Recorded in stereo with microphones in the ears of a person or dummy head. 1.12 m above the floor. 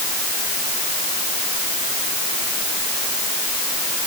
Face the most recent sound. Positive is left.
No sound to turn to.